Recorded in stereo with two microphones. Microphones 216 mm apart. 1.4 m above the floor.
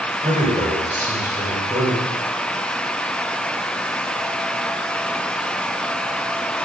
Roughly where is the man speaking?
Right.